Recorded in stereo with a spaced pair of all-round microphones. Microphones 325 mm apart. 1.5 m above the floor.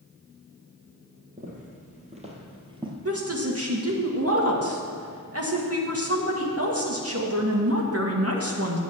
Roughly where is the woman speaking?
Right.